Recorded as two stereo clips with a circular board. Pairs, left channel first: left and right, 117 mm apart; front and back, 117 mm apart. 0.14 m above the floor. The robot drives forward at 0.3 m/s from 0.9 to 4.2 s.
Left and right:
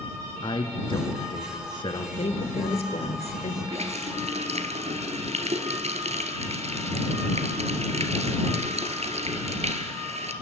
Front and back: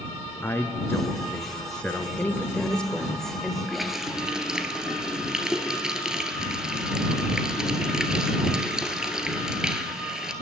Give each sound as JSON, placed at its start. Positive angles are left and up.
{"t": 0.4, "sound": "a man speaking", "azimuth_deg": 65, "distance_m": 1.7}
{"t": 2.2, "sound": "a woman speaking", "azimuth_deg": 75, "distance_m": 2.5}
{"t": 3.7, "sound": "a running tap", "azimuth_deg": -90, "distance_m": 1.6}